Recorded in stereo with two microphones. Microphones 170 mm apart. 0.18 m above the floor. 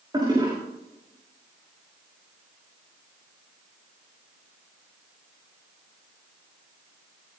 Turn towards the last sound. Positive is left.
turn(degrees=-25)  # may be behind; listen again after turning